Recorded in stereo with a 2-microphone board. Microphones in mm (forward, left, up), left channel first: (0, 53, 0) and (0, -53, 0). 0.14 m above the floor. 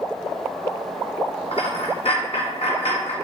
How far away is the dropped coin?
About 1.1 m.